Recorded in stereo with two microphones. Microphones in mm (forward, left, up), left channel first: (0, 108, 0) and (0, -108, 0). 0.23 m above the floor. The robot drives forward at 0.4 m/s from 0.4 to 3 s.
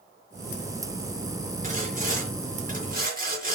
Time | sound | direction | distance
1.6 | sawing | 35° right (ahead or behind) | 4.5 m